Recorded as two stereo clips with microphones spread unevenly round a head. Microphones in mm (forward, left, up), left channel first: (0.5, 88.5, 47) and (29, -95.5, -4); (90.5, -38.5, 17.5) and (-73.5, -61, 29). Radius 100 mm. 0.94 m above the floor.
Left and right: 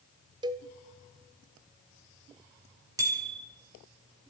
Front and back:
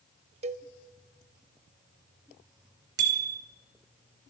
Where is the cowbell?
160° right, 0.6 m.